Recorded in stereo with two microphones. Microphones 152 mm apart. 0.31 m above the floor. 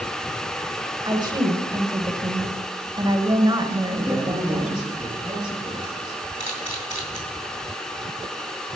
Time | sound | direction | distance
1.1 | a woman speaking | 30° right (ahead or behind) | 1.1 m
4.0 | a man speaking | 5° right (ahead or behind) | 4 m
6.4 | a camera shutter | 55° left (ahead or behind) | 2.5 m